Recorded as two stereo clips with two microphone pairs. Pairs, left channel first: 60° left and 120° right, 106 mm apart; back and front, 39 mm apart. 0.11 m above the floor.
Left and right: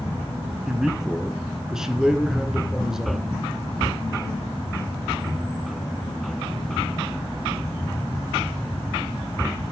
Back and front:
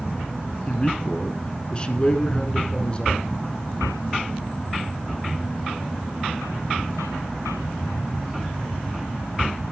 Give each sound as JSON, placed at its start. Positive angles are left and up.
{"t": 0.7, "sound": "a man speaking", "azimuth_deg": 160, "distance_m": 1.9}